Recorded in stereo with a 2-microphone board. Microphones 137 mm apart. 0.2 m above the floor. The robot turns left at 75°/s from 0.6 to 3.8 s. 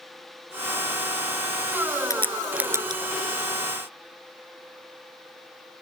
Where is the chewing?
No chewing in this recording.